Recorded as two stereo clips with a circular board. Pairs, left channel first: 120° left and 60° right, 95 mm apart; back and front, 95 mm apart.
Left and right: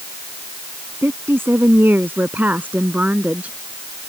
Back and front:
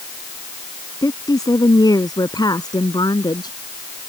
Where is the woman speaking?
125° right; by 3.6 s 135° right.